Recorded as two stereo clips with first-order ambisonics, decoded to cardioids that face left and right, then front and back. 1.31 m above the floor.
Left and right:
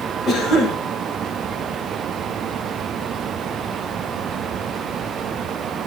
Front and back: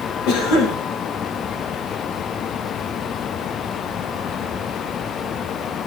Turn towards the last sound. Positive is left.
turn(degrees=30)